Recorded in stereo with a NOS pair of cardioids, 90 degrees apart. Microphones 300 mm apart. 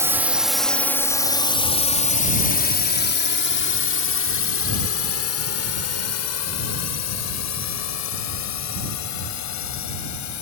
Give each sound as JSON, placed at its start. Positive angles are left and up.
{"t": 0.0, "sound": "a drone", "azimuth_deg": -10}